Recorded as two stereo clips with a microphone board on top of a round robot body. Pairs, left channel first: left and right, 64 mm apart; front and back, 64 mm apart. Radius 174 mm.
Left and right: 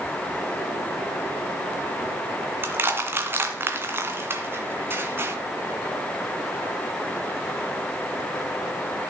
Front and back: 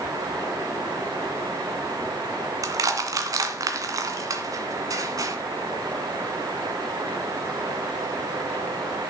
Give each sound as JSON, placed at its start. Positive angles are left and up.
{"t": 2.6, "sound": "crushing", "azimuth_deg": -150, "distance_m": 1.9}